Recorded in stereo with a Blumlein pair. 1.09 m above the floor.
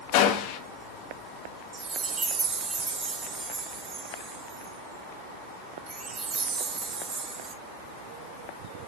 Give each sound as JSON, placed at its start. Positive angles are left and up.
{"t": 0.1, "sound": "a gunshot", "azimuth_deg": 45, "distance_m": 0.9}
{"t": 1.7, "sound": "a chime", "azimuth_deg": -20, "distance_m": 0.9}